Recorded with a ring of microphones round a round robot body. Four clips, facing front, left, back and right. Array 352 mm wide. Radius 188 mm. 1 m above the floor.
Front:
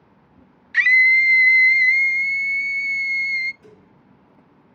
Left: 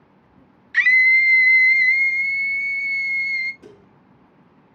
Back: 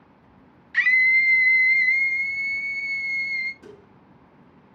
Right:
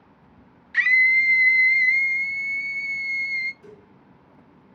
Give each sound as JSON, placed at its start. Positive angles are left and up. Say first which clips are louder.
{"t": 0.7, "sound": "a scream", "louder": "left 3 dB, front 4 dB", "azimuth_deg": 45, "distance_m": 0.5}
{"t": 3.6, "sound": "dishes clattering", "louder": "left 1 dB, back 3 dB", "azimuth_deg": 115, "distance_m": 1.6}